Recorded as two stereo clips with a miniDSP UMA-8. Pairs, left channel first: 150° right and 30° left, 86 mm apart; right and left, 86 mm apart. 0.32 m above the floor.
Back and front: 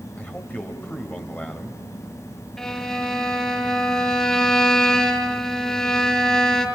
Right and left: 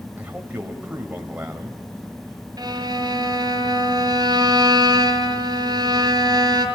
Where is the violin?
130° left, 2.5 m.